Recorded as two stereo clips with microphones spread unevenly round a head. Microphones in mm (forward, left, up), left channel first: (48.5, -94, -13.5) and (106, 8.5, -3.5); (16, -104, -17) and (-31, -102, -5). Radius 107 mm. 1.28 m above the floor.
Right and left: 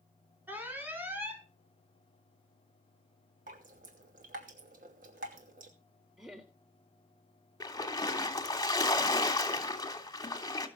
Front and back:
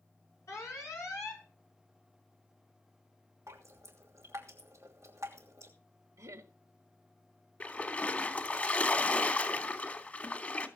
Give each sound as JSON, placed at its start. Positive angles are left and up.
{"t": 0.5, "sound": "an alarm", "azimuth_deg": -15, "distance_m": 5.0}
{"t": 3.5, "sound": "dripping", "azimuth_deg": 100, "distance_m": 2.5}
{"t": 6.2, "sound": "laughter", "azimuth_deg": 150, "distance_m": 2.0}
{"t": 7.6, "sound": "a splash", "azimuth_deg": -60, "distance_m": 3.0}